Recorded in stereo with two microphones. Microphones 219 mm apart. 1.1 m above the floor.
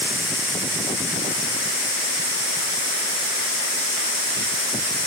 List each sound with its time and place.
Only background noise.